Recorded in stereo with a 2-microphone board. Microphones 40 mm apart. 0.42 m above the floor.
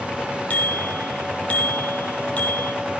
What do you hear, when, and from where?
0.5 s a bicycle bell: 40° left (ahead or behind), 9 m